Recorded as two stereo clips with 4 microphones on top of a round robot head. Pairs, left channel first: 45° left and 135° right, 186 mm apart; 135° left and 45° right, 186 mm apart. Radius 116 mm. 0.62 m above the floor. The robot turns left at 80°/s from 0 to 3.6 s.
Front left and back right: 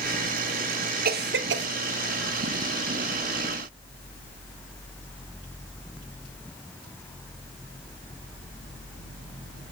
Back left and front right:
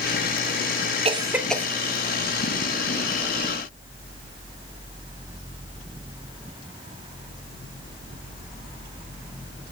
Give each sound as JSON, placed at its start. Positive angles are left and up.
{"t": 1.1, "sound": "a cough", "azimuth_deg": -100, "distance_m": 2.0}